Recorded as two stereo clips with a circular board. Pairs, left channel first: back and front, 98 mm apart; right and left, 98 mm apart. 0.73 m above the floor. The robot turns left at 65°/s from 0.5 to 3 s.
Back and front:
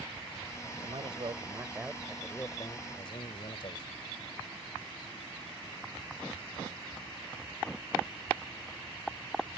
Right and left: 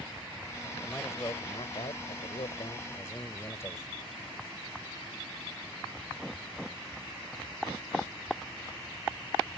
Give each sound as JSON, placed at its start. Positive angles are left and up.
{"t": 0.8, "sound": "a man speaking", "azimuth_deg": -10}